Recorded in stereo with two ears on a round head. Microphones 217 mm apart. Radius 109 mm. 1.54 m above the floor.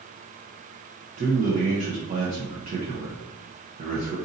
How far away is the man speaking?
About 0.7 m.